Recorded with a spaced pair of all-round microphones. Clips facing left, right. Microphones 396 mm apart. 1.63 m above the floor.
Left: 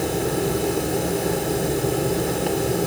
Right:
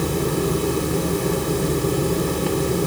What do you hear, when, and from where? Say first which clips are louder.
0.0 s a fan: right 1 dB; 15° right (ahead or behind), 0.9 m